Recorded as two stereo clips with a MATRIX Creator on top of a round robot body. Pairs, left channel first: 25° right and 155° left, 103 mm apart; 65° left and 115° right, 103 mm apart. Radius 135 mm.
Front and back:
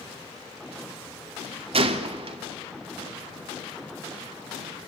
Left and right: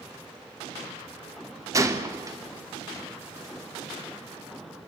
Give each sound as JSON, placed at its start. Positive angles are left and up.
{"t": 1.7, "sound": "a gunshot", "azimuth_deg": -175, "distance_m": 2.0}